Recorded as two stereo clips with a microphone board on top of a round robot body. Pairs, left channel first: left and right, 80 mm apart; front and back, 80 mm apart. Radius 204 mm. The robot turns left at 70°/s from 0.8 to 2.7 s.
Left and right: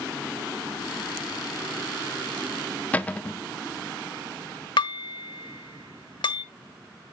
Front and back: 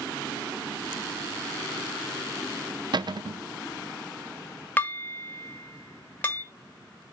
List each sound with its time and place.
2.9 s a cupboard door: 160° left, 0.9 m
4.8 s dishes clattering: 65° left, 1.1 m